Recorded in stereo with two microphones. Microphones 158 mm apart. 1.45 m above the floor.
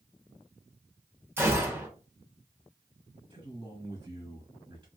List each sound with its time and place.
1.4 s a gunshot: 15° right (ahead or behind), 1.5 m
3.3 s a man speaking: 30° right (ahead or behind), 2 m